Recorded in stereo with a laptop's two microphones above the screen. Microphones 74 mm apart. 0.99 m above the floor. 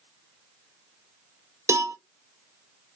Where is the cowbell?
40° right (ahead or behind), 0.5 m.